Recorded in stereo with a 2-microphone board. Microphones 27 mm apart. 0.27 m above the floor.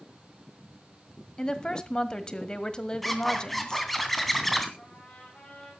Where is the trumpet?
45° left (ahead or behind), 7 m.